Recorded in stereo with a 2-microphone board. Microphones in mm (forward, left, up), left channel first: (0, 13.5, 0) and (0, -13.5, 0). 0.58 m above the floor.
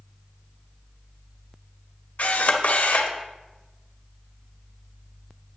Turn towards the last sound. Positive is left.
turn(degrees=70)  # may be behind; listen again after turning